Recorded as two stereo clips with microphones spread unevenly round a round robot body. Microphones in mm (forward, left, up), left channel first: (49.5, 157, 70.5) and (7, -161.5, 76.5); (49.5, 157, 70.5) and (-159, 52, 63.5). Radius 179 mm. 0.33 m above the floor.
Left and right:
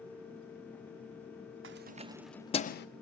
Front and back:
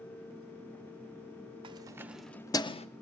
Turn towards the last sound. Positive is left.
turn(degrees=75)